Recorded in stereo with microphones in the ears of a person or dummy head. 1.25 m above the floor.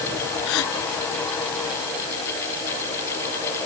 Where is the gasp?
70° left (ahead or behind).